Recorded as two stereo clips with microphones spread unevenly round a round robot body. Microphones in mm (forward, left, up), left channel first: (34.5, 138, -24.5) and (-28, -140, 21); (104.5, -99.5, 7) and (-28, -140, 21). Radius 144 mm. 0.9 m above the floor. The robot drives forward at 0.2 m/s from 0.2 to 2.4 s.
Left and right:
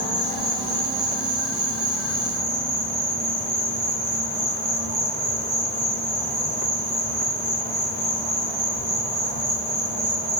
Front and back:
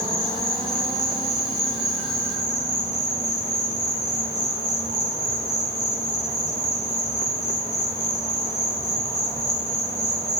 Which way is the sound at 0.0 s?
135° right.